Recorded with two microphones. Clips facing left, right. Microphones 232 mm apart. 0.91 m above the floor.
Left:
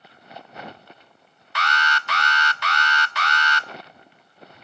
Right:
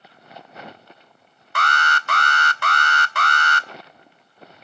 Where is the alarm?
55° right (ahead or behind), 0.9 m.